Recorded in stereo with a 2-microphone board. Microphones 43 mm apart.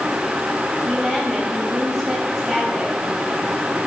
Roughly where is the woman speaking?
Centre.